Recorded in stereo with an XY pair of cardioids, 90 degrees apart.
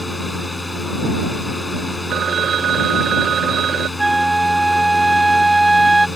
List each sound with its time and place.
0.0 s a fan: 15° left
2.1 s a phone ringing: 65° right
4.0 s a flute: 15° right